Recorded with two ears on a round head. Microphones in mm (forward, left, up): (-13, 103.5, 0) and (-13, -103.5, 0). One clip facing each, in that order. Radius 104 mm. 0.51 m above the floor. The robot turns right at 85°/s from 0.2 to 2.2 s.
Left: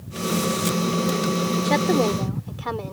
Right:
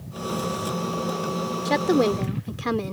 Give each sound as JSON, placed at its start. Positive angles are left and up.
{"t": 1.6, "sound": "a woman speaking", "azimuth_deg": 175}